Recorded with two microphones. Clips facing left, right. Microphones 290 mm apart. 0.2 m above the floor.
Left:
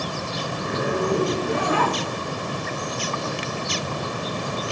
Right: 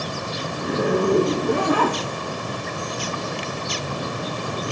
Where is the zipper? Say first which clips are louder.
Right 4 dB; 50° right (ahead or behind), 3 m.